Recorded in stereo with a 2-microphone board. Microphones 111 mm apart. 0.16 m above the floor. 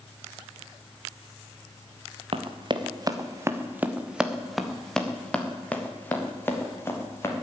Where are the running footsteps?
55° right (ahead or behind), 1.7 m; by 7.3 s 25° left (ahead or behind), 4 m.